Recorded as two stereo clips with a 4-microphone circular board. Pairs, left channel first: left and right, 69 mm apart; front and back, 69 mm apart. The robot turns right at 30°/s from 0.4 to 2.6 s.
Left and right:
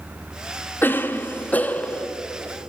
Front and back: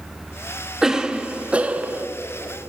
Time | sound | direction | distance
0.8 | a cough | 105° left | 0.6 m